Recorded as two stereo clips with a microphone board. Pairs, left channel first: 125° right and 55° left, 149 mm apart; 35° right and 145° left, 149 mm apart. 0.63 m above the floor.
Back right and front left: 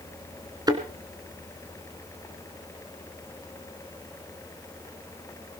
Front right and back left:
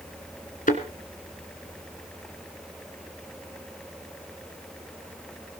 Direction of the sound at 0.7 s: 10° right.